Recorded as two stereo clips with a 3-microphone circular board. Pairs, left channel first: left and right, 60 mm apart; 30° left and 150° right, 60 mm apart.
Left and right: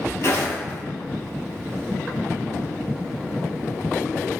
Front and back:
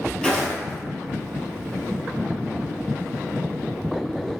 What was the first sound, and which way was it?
Footsteps, 105° left.